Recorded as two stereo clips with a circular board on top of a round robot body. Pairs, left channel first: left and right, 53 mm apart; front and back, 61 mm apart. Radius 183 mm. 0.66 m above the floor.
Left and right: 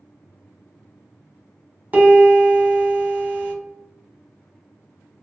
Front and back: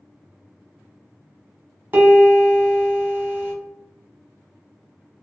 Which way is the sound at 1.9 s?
135° right.